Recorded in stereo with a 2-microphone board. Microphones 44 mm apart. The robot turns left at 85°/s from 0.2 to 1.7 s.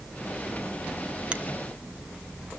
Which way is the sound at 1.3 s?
20° right (ahead or behind).